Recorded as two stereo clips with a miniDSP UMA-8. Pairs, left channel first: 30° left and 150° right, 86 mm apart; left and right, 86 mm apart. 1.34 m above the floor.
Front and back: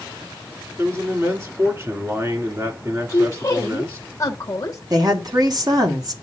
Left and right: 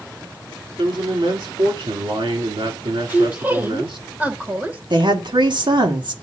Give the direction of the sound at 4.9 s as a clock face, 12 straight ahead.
4 o'clock.